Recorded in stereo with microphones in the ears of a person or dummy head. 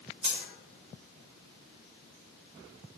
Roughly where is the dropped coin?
Right.